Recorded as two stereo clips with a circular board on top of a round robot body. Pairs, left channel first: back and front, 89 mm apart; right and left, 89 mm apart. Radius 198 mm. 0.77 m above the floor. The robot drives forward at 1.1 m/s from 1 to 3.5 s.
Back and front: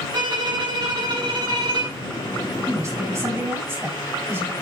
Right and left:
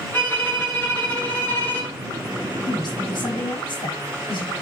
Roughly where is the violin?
Ahead.